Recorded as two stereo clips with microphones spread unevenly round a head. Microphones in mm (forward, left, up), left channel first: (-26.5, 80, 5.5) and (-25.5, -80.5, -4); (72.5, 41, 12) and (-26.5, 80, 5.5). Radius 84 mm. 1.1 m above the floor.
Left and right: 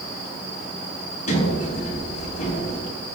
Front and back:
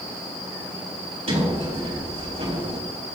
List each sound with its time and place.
1.3 s a sliding door: 135° left, 5 m